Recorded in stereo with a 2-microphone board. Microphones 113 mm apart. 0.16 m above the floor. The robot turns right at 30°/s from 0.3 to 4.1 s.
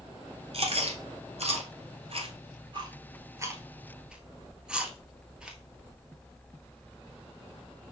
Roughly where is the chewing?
Right.